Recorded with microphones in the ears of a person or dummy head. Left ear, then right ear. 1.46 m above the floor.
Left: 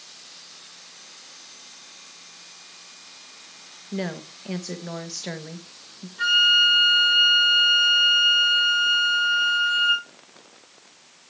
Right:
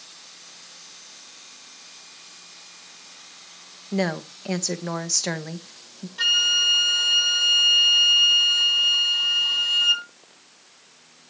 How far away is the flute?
About 5.5 m.